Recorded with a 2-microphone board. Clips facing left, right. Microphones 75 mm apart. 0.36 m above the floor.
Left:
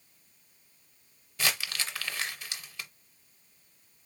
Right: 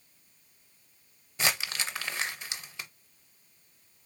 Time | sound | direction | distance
1.4 | crumpling | 20° right (ahead or behind) | 0.6 m